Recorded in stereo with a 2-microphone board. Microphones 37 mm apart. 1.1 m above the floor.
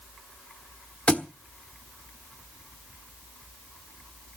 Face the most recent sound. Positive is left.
turn(degrees=35)  # may be behind; listen again after turning